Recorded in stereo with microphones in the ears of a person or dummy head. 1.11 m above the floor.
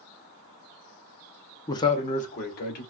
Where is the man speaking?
15° left (ahead or behind), 0.5 m; by 2.8 s 55° left (ahead or behind), 1.1 m.